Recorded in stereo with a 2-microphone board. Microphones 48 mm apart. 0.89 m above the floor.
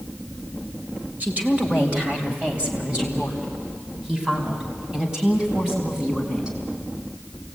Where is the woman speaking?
30° right (ahead or behind), 3.5 m; by 6.6 s 15° right (ahead or behind), 6.5 m.